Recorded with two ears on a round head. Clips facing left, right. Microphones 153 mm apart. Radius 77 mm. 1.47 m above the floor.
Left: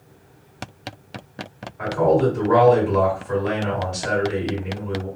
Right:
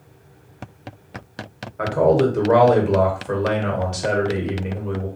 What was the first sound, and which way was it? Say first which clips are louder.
A man speaking: right 1 dB; 75° right (ahead or behind).